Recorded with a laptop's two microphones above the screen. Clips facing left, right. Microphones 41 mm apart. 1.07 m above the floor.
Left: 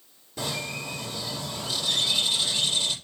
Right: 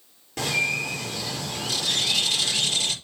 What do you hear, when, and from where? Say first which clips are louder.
0.4 s a bird: right 8 dB; 65° right (ahead or behind), 4 m